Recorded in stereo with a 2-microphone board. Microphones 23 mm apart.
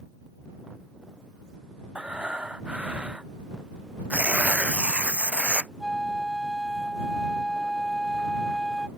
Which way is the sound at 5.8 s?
5° left (ahead or behind).